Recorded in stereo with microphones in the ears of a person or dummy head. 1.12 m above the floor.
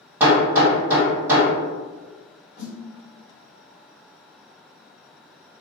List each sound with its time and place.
0.2 s hammering: 15° right (ahead or behind), 1.4 m
2.6 s a snare drum: 45° left (ahead or behind), 1.5 m